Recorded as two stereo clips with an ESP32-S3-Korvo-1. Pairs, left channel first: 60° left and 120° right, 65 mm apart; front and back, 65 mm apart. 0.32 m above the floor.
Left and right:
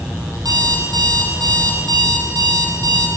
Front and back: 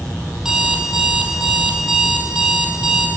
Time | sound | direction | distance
0.4 | an alarm clock | 100° right | 5.5 m